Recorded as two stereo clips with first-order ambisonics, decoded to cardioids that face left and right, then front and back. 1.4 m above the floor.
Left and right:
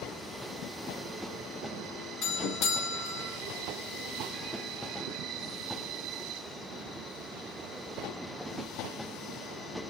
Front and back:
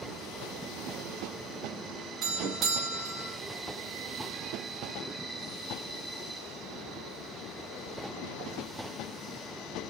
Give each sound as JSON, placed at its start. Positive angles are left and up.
{"t": 2.2, "sound": "a doorbell", "azimuth_deg": 125, "distance_m": 1.4}